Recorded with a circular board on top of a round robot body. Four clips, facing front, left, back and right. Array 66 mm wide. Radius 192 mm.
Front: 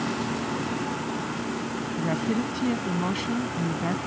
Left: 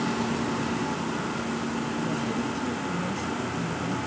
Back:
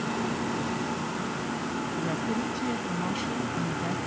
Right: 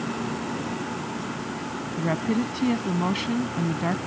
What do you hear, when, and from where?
2.0 s a woman speaking: 75° right